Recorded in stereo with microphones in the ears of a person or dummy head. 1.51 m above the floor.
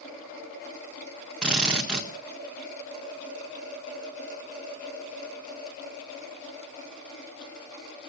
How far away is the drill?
About 1.4 m.